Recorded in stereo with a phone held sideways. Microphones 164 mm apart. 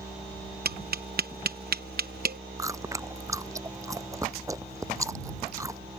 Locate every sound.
0.7 s tapping: 70° right (ahead or behind)
2.6 s chewing: 20° right (ahead or behind)